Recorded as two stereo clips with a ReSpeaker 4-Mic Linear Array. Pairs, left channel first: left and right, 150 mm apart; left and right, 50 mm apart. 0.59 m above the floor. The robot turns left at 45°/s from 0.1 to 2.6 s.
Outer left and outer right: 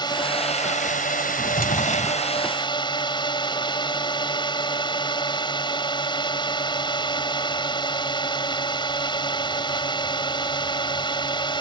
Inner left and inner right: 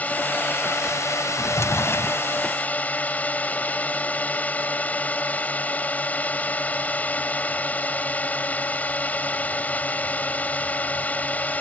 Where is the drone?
145° left; by 11.6 s 35° left.